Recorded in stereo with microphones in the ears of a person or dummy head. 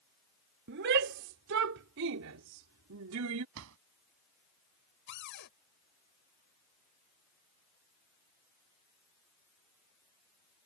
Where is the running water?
I don't hear running water.